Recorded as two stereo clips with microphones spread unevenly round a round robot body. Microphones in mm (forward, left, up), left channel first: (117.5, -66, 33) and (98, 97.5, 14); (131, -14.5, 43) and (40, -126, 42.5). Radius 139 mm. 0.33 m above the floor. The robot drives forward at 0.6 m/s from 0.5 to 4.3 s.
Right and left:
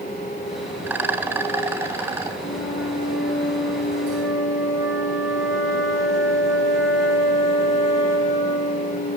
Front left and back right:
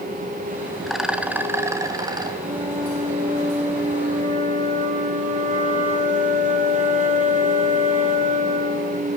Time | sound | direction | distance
0.9 | a rattle | 140° left | 0.7 m
2.4 | a flute | 75° right | 3 m